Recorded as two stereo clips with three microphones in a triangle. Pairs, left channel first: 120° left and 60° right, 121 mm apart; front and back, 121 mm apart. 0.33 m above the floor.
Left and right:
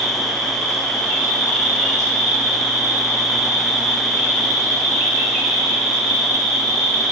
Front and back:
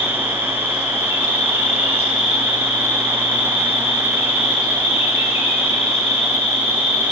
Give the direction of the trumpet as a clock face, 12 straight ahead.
I don't hear a trumpet.